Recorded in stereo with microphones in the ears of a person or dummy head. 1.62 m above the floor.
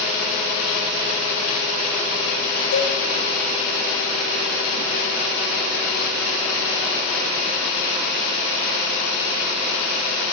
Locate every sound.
2.7 s a cowbell: 65° left (ahead or behind), 0.9 m